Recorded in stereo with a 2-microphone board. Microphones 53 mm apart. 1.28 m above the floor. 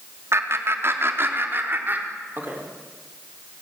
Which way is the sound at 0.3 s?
55° right (ahead or behind).